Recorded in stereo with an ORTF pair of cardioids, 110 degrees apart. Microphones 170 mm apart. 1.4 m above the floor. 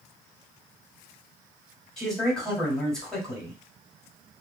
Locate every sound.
2.0 s a man speaking: 5° left, 2.5 m